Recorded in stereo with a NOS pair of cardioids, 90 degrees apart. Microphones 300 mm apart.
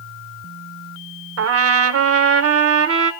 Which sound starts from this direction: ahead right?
A trumpet, at 1.4 s.